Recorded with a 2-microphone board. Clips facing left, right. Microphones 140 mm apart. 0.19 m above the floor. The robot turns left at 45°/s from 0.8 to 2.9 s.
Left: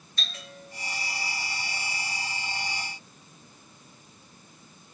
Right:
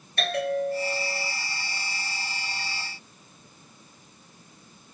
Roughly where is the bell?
Right.